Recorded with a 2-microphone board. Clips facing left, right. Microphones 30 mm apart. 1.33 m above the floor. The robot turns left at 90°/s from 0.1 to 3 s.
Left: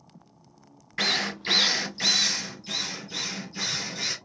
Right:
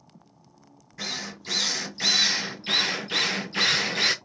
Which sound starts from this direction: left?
A drill, at 1.0 s.